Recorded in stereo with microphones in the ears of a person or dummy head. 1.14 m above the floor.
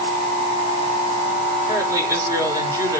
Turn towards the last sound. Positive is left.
turn(degrees=-15)  # may be behind; listen again after turning